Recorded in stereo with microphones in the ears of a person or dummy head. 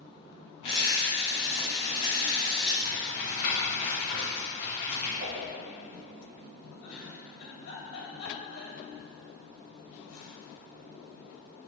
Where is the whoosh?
50° right (ahead or behind), 1.2 m.